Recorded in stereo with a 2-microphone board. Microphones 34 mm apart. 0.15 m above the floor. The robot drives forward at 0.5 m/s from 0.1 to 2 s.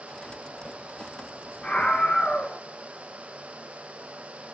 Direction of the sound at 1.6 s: 30° left (ahead or behind).